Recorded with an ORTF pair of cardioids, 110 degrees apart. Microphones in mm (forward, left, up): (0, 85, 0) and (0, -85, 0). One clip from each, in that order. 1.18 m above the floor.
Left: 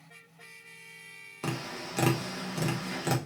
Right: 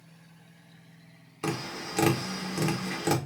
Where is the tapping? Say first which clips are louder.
Right 3 dB; 10° right, 1.3 m.